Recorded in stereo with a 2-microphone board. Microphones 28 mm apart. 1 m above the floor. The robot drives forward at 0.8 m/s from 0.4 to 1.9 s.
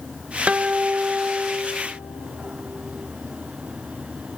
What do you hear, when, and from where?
0.5 s a guitar: 50° right (ahead or behind), 0.5 m; by 2.5 s 20° right (ahead or behind), 1.1 m